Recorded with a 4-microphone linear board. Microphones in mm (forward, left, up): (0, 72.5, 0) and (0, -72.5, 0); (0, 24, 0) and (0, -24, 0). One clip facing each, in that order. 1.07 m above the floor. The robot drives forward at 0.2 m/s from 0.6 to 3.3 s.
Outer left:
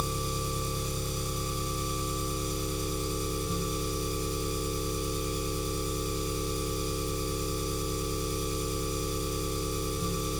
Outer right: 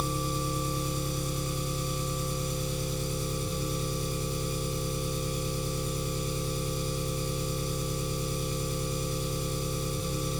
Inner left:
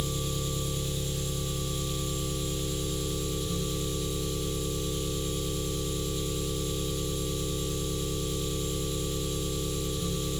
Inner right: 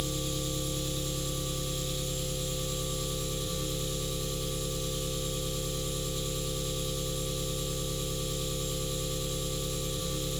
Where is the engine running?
20° left (ahead or behind), 1.0 m; by 10.4 s 10° left (ahead or behind), 1.5 m.